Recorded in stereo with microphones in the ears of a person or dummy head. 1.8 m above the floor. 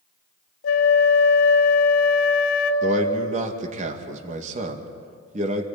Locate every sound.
0.6 s a flute: 60° left (ahead or behind), 1.3 m
2.8 s a man speaking: 45° right (ahead or behind), 2.5 m